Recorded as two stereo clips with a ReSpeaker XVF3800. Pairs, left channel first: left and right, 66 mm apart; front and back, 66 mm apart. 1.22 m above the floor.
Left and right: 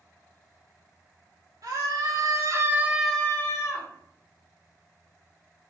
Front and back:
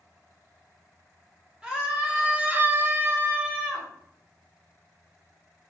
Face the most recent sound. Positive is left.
turn(degrees=110)